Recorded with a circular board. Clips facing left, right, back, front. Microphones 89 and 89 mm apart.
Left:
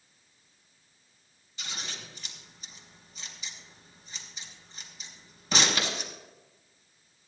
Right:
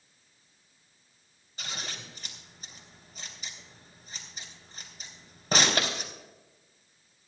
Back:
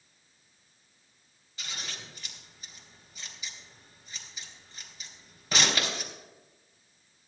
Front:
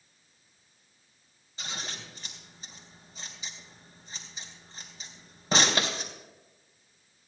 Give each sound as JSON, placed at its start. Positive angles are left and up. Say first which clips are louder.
{"t": 1.6, "sound": "scissors", "louder": "right 1 dB, front 3 dB", "azimuth_deg": -55, "distance_m": 3.0}